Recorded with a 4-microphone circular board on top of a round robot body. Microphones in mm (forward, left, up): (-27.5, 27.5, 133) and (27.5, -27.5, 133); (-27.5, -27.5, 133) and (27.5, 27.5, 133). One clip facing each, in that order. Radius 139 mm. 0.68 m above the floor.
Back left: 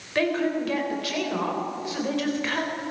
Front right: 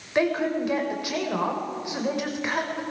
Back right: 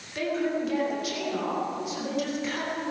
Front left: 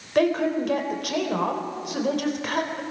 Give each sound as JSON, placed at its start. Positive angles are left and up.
{"t": 0.1, "sound": "a woman speaking", "azimuth_deg": 25, "distance_m": 4.0}